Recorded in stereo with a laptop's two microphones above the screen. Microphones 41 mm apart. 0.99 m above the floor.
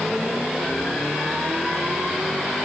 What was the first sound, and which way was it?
Only background noise.